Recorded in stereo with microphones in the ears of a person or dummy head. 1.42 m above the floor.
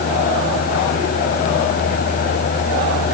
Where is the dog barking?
No dog barking in this recording.